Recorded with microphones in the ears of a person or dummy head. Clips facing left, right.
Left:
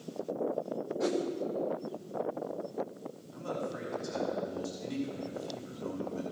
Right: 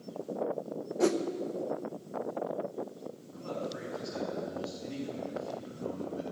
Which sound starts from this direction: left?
A man speaking, at 3.3 s.